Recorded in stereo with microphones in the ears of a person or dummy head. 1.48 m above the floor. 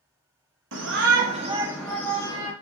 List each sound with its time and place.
0.7 s a shout: 65° right (ahead or behind), 0.6 m; by 2.5 s 25° left (ahead or behind), 0.8 m